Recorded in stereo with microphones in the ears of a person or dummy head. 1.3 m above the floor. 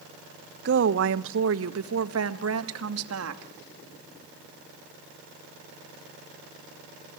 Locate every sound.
0.7 s a woman speaking: 65° right (ahead or behind), 1.1 m; by 3.5 s 80° right, 2.5 m